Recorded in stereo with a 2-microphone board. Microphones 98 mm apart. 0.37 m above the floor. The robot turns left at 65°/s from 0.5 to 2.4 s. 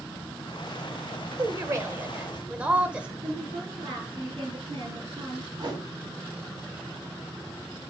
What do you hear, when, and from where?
1.4 s a woman speaking: 95° right, 1.2 m; by 3.1 s 160° right, 1.2 m
3.2 s a woman speaking: 65° right (ahead or behind), 4 m
5.6 s a whoosh: 50° right (ahead or behind), 1.9 m